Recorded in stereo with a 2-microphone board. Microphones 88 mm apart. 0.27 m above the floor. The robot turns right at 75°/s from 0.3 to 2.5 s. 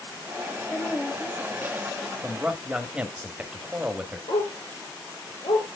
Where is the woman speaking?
20° left (ahead or behind), 1.1 m; by 2.1 s 10° right (ahead or behind), 1.1 m.